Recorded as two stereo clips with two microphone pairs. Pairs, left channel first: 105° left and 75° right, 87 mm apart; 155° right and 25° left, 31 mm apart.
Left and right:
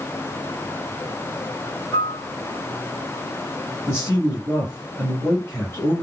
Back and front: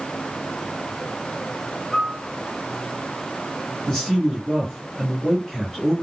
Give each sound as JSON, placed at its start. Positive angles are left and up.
{"t": 1.9, "sound": "a piano", "azimuth_deg": 140, "distance_m": 1.4}
{"t": 3.9, "sound": "a man speaking", "azimuth_deg": 140, "distance_m": 1.8}